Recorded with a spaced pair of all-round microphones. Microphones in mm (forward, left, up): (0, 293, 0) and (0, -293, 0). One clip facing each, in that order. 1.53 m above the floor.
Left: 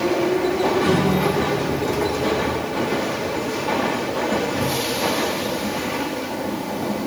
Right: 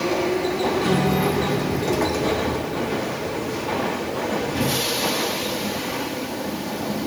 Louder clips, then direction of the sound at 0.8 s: Left 2 dB; 45° right (ahead or behind).